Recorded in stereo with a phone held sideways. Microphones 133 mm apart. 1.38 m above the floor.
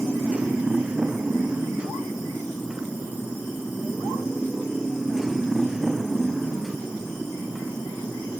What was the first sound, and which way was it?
A motorcycle, 10° right (ahead or behind).